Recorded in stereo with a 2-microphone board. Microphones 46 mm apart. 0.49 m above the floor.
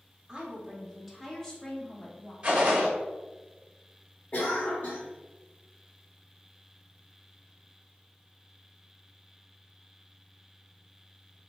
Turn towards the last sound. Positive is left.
turn(degrees=40)  # may be behind; listen again after turning